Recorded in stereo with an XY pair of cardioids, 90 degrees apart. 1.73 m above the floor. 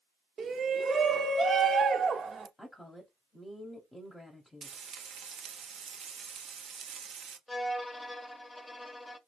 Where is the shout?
50° right, 0.9 m.